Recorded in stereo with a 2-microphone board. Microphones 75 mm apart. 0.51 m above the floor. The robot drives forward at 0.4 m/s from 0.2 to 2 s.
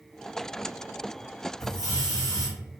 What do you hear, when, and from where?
1.6 s a hiss: 60° left (ahead or behind), 1.8 m; by 2.5 s 55° left (ahead or behind), 1.8 m